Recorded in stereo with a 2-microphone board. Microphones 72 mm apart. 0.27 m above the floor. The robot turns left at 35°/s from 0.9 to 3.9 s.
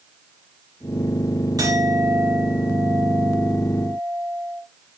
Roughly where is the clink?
Behind right.